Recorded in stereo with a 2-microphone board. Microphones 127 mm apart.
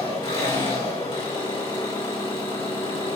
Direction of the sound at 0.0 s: 45° left (ahead or behind).